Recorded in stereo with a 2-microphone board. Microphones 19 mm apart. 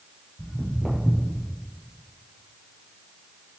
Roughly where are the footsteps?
Centre.